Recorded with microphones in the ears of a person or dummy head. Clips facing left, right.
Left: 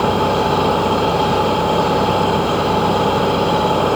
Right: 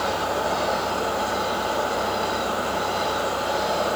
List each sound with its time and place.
0.0 s an engine running: 85° left